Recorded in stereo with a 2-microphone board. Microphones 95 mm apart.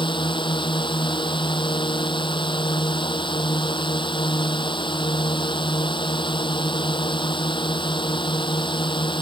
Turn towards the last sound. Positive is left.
turn(degrees=60)  # may be behind; listen again after turning